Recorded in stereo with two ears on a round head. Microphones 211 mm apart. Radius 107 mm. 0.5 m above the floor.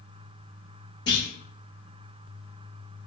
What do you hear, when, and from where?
1.1 s a clunk: 20° left (ahead or behind), 0.6 m